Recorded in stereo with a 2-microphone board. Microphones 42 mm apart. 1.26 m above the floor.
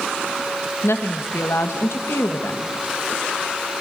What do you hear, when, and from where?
0.8 s a woman speaking: 75° left (ahead or behind), 1.8 m